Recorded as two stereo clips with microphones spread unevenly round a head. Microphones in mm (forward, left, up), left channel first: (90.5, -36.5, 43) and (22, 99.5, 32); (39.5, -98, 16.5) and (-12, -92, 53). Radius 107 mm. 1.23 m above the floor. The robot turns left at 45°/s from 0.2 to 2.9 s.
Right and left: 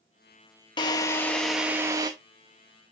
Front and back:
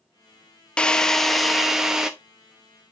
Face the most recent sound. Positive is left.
turn(degrees=150)